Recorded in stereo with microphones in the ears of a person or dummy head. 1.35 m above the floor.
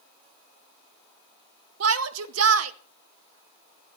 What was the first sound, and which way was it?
A shout, 75° right (ahead or behind).